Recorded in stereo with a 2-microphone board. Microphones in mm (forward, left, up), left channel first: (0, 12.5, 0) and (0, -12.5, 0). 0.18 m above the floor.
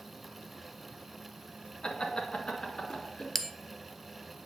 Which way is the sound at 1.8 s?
40° left (ahead or behind).